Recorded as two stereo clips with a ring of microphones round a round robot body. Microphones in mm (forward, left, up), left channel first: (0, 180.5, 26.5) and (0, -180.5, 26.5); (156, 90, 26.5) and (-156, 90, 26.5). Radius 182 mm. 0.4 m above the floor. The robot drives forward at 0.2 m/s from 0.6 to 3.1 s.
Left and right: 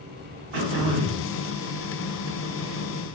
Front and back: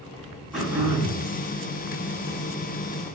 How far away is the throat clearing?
About 0.8 m.